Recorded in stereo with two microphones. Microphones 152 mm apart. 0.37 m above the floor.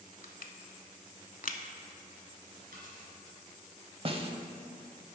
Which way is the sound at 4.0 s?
40° right (ahead or behind).